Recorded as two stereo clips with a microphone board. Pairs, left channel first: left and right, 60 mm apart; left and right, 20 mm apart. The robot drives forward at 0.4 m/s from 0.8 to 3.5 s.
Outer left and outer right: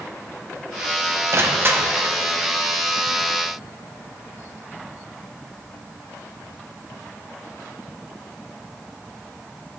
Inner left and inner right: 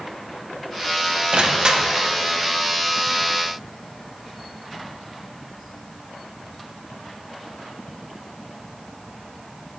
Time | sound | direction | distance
1.3 | crushing | 45° right (ahead or behind) | 0.5 m